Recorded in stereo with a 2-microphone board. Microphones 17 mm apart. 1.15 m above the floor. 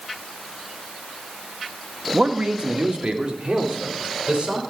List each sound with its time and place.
2.1 s a man speaking: 85° right, 1.2 m; by 4.6 s 70° right (ahead or behind), 4 m